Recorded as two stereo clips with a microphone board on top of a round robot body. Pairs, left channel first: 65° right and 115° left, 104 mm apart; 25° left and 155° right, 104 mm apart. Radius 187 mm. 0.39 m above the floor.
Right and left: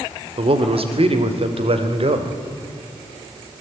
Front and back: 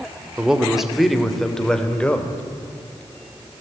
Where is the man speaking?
120° left, 2.5 m; by 2.4 s 100° left, 3 m.